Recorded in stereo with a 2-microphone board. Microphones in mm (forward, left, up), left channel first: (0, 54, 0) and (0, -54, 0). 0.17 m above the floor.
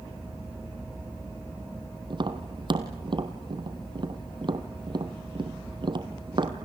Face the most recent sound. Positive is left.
turn(degrees=-45)  # may be behind; listen again after turning